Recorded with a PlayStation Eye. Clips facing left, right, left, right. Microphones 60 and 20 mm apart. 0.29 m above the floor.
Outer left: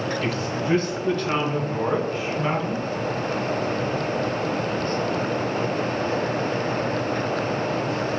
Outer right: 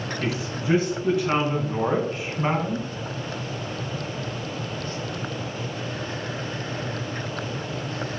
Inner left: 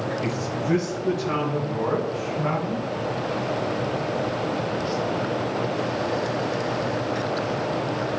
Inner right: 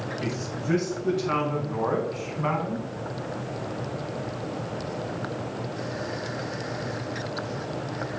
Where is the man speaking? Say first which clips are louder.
Outer left 2 dB, inner left 4 dB; 10° right (ahead or behind), 3 m; by 2.9 s 15° right (ahead or behind), 1.8 m.